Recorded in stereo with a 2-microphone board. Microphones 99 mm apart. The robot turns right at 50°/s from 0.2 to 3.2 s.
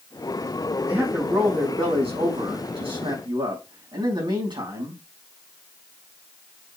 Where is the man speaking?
170° right, 4.5 m; by 5.0 s 50° right, 4.5 m.